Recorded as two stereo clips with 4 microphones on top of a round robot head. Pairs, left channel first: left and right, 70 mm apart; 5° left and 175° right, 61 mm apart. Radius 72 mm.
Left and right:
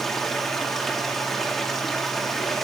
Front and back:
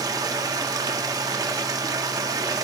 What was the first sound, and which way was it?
Running water, straight behind.